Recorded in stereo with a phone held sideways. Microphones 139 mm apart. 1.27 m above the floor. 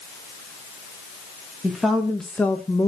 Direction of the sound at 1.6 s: 5° right (ahead or behind).